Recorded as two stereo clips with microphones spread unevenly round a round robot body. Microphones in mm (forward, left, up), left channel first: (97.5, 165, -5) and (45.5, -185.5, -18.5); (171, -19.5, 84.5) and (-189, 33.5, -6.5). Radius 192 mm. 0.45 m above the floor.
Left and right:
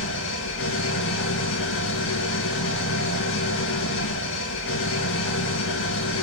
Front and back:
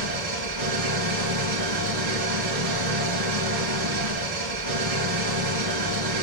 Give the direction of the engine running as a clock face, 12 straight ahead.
7 o'clock.